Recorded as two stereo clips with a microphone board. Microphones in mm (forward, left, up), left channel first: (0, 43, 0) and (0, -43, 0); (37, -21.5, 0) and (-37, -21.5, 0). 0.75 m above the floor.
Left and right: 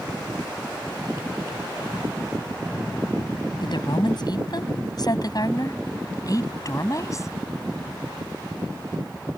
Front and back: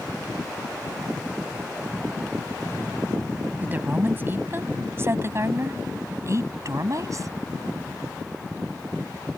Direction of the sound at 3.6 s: 115° left.